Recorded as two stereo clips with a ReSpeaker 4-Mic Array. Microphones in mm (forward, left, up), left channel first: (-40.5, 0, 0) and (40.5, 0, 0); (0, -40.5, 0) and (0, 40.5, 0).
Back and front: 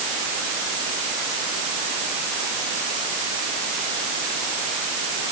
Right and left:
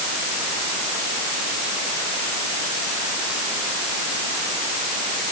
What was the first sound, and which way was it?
Only background noise.